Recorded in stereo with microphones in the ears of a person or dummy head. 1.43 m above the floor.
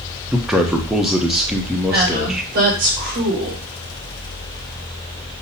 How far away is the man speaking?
About 0.8 m.